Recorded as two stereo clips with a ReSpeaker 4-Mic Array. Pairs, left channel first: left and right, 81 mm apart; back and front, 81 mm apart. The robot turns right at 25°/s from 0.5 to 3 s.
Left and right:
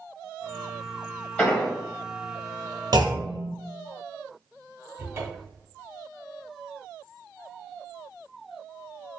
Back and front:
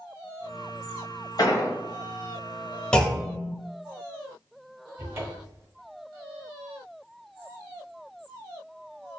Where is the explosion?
155° left, 0.9 m; by 1.7 s 165° left, 0.9 m.